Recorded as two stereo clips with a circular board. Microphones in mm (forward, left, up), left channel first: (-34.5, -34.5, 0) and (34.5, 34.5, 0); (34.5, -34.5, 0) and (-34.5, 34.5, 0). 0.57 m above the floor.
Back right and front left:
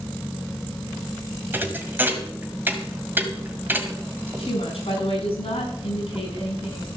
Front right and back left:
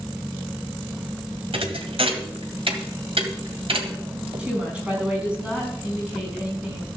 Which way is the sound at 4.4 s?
145° right.